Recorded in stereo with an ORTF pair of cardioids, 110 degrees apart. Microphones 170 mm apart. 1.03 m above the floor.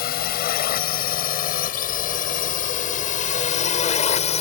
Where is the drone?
65° left; by 4.4 s 40° left.